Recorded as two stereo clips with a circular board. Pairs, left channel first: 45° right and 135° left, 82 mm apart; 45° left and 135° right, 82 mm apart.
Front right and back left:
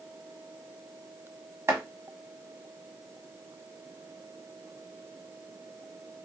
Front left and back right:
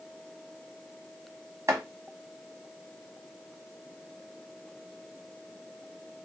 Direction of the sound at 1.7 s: 175° right.